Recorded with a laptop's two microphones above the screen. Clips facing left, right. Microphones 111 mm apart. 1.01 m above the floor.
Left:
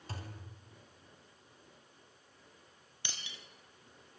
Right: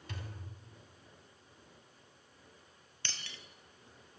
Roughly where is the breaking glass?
Centre.